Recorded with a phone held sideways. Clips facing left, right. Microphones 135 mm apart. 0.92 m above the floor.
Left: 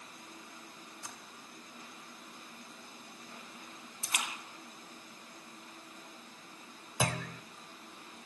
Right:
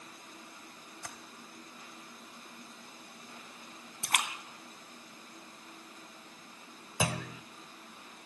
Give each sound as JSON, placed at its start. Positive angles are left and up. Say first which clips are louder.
{"t": 1.0, "sound": "typing on a keyboard", "louder": "right 3 dB", "side_deg": -85, "distance_m": 2.5}
{"t": 4.0, "sound": "a splash", "louder": "right 5 dB", "side_deg": -75, "distance_m": 2.5}
{"t": 7.0, "sound": "a clunk", "louder": "right 1 dB", "side_deg": -5, "distance_m": 1.1}